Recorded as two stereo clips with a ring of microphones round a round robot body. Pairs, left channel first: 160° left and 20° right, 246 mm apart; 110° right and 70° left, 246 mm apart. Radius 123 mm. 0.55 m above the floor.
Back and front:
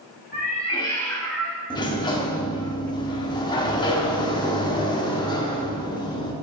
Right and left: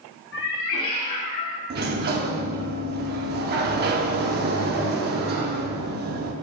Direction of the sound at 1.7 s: 95° left.